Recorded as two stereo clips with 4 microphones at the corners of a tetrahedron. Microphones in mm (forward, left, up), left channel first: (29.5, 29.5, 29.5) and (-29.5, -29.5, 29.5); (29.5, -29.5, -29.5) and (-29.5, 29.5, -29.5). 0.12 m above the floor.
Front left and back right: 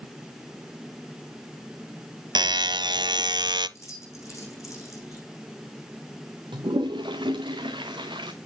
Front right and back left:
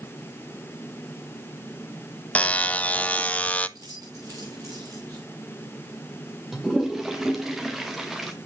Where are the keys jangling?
95° left, 7 m.